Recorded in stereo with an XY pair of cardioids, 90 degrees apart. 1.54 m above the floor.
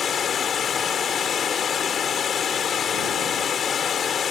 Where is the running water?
55° left.